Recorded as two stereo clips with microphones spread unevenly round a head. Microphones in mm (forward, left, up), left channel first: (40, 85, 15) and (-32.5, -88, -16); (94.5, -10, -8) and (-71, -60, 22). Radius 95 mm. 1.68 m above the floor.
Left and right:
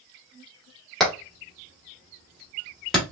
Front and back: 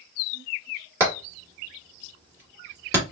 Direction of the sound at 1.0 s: 145° left.